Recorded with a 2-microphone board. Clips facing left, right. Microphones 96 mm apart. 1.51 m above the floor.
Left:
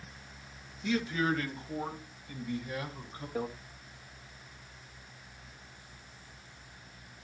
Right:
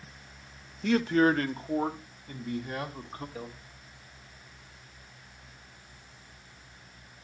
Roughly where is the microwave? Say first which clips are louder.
Left 8 dB; left.